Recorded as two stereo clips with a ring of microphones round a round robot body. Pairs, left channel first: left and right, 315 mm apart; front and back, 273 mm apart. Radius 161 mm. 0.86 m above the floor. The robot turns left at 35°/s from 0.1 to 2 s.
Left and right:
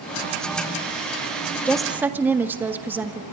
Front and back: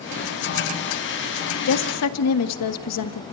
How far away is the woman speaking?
About 1.7 m.